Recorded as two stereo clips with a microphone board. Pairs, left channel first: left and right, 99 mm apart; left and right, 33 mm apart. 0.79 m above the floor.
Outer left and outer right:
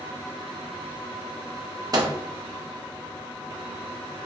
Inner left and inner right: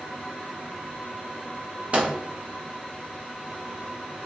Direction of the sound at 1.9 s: 40° right (ahead or behind).